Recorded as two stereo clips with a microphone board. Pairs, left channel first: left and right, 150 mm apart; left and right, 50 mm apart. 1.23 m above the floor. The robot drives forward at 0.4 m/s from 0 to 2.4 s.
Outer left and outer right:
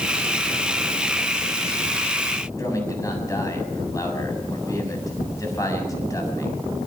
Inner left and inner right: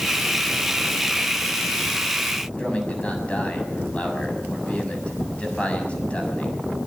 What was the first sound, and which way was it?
A man speaking, 20° left (ahead or behind).